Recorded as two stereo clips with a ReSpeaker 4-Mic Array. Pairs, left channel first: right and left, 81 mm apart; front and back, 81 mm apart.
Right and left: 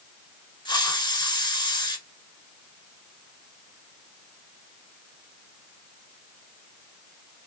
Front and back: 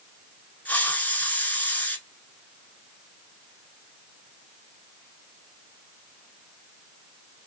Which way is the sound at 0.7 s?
70° right.